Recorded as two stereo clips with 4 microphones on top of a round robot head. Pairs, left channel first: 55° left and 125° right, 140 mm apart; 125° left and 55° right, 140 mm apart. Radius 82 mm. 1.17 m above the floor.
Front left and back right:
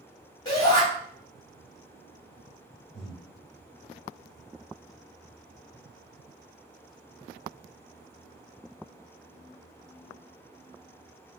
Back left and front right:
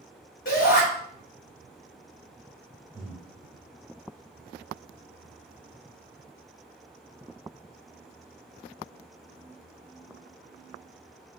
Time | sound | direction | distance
0.5 | a shout | 105° left | 2.5 m
2.9 | breathing | 15° left | 1.6 m